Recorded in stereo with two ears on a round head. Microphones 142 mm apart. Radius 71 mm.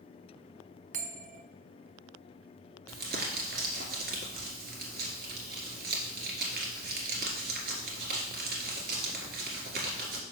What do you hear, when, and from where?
0.9 s a bell: 50° right (ahead or behind), 0.7 m
2.9 s crumpling: 70° right (ahead or behind), 1.8 m